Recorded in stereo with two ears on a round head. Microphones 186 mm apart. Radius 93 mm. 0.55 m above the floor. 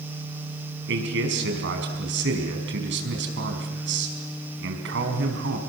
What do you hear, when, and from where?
0.9 s a man speaking: 60° right (ahead or behind), 5 m